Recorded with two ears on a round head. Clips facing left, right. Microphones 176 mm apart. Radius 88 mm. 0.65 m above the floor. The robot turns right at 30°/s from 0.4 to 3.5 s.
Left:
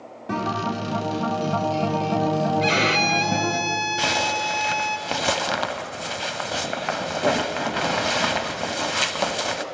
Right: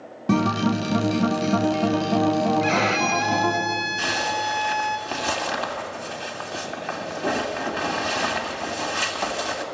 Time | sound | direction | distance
0.3 | a guitar | 60° right | 2 m
2.6 | a violin | 45° left (ahead or behind) | 1.5 m
4.0 | a zipper | 70° left (ahead or behind) | 1.5 m